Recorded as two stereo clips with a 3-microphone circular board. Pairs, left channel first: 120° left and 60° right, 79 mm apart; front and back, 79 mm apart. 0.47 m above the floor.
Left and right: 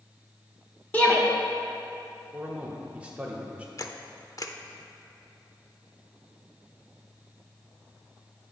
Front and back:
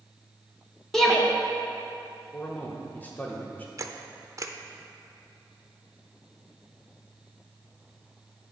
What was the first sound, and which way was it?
A shout, 75° left.